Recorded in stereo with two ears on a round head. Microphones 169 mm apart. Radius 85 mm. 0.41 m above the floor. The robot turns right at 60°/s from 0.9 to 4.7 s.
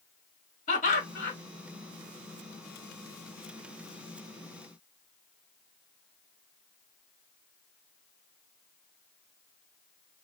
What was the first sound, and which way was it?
Laughter, 45° left (ahead or behind).